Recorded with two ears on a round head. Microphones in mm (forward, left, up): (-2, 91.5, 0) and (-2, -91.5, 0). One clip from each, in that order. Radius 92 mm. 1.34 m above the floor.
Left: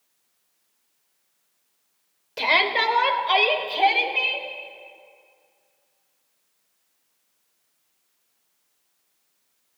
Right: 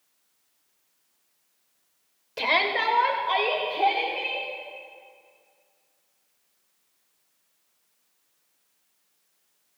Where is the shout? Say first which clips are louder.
Left 3 dB; 5° left (ahead or behind), 1.0 m; by 4.5 s 65° left (ahead or behind), 3.5 m.